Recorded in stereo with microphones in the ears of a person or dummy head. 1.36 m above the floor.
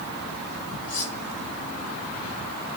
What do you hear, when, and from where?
0.9 s cutlery clinking: 40° left (ahead or behind), 3.5 m